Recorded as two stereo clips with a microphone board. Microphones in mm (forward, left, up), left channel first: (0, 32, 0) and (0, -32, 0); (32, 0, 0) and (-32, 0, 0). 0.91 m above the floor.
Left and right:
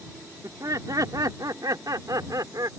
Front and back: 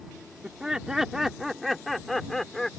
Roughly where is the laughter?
Right.